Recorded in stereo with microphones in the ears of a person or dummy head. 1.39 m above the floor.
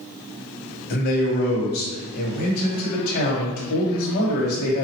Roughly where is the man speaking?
Left.